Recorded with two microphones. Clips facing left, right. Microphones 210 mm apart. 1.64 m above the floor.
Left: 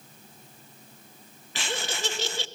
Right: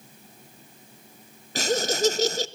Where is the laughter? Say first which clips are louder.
Right 10 dB; 40° right (ahead or behind), 1.0 m.